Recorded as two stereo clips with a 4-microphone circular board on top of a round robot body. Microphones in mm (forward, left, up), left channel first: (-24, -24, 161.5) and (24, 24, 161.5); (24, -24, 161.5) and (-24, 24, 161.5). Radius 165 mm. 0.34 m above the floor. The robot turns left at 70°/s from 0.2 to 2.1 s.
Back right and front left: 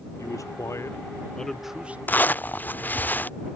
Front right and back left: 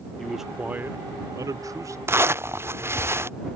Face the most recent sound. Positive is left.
turn(degrees=170)